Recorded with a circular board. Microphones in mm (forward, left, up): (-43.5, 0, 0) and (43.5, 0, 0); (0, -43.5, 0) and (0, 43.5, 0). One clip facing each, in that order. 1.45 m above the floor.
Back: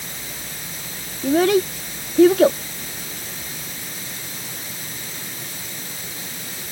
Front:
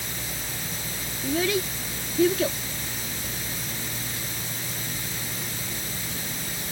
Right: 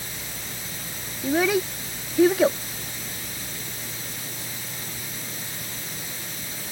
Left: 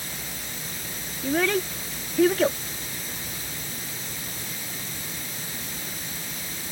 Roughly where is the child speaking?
Behind.